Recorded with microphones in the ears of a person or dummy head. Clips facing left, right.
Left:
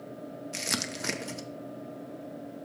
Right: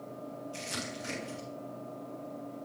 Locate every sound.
0.5 s crumpling: 80° left, 0.8 m